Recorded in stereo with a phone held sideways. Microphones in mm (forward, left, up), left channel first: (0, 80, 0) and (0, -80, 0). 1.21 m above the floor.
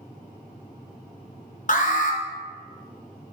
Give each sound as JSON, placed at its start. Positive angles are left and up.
{"t": 1.7, "sound": "an alarm", "side_deg": 55, "distance_m": 0.8}